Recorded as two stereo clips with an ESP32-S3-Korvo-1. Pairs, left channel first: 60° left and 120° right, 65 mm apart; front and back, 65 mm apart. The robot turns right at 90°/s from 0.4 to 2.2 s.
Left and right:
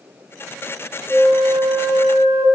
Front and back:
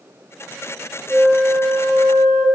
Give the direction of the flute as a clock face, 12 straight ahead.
9 o'clock.